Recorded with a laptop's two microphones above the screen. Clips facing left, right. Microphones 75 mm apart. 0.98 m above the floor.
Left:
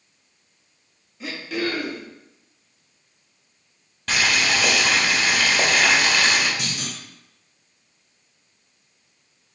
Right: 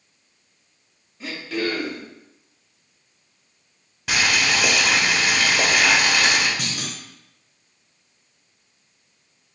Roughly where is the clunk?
Right.